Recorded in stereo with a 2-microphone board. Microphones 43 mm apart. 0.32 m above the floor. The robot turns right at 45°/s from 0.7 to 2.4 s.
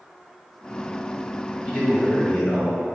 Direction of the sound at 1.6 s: 45° left.